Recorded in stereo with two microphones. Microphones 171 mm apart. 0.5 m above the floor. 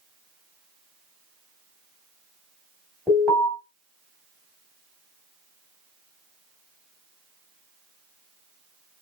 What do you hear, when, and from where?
3.1 s an alarm: 10° left (ahead or behind), 2.5 m